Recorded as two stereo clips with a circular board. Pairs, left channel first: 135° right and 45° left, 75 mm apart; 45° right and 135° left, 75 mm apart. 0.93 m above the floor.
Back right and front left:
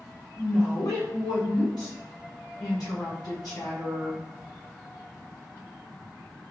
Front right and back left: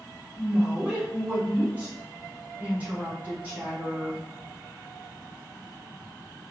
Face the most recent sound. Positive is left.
turn(degrees=-160)